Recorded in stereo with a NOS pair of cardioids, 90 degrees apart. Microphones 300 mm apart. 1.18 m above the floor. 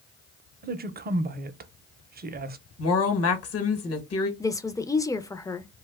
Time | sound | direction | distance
0.6 | a woman speaking | 35° right | 0.6 m
2.8 | a woman speaking | 50° left | 1.2 m
4.4 | a woman speaking | 10° left | 0.5 m